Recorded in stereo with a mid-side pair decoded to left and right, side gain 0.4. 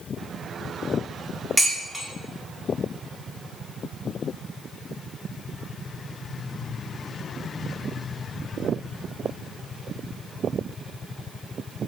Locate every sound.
1.6 s dishes clattering: 20° right, 1.5 m